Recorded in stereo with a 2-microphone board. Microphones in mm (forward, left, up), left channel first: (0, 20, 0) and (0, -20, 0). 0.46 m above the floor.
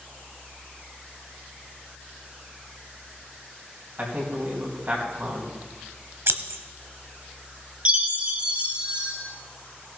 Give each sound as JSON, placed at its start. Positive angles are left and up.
{"t": 4.0, "sound": "a man speaking", "side_deg": -45, "distance_m": 3.5}
{"t": 6.3, "sound": "scissors", "side_deg": -70, "distance_m": 0.9}
{"t": 7.8, "sound": "a chime", "side_deg": -30, "distance_m": 3.5}